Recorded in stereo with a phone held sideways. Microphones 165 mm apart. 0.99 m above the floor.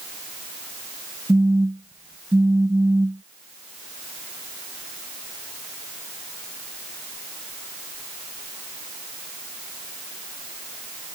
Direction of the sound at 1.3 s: 5° right (ahead or behind).